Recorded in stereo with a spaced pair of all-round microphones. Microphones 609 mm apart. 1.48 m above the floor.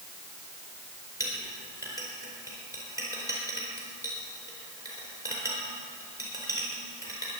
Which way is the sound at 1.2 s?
5° right (ahead or behind).